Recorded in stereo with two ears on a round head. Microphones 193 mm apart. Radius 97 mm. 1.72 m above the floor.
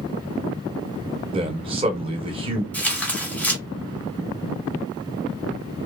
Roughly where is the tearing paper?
Centre.